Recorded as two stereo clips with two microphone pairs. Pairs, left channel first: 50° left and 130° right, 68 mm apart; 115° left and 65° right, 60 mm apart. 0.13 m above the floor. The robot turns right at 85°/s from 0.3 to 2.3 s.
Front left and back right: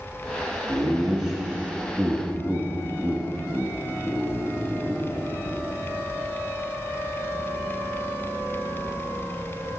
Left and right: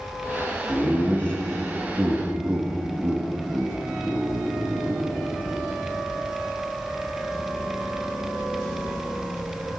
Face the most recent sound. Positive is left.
turn(degrees=-110)